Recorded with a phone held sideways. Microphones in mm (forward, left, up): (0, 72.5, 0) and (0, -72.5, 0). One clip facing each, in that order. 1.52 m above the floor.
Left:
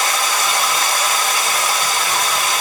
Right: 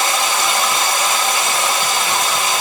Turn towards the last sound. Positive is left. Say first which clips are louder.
# right 2 dB
turn(degrees=-20)  # may be behind; listen again after turning